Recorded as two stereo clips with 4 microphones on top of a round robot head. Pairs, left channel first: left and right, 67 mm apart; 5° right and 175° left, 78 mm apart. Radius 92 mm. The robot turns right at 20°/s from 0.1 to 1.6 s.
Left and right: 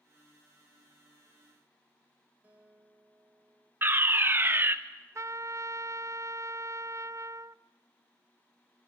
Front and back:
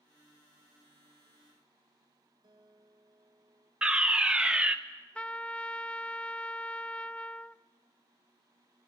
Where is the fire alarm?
120° right, 1.5 m.